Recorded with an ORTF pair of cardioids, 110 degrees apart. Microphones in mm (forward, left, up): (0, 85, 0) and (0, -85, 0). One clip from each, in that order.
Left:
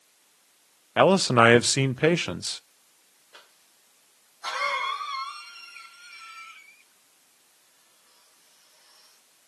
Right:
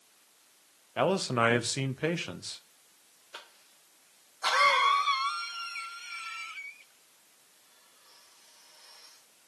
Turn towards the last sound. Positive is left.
turn(degrees=-40)